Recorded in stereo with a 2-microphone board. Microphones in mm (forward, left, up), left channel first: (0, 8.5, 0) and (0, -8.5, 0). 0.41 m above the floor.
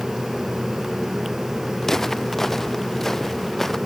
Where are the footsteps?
20° left (ahead or behind); by 3.8 s 15° left (ahead or behind).